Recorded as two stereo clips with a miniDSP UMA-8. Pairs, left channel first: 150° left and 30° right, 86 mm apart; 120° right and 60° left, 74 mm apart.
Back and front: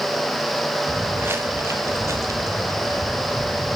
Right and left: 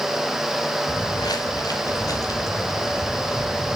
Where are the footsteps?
100° right, 1.8 m; by 3.8 s 75° right, 4 m.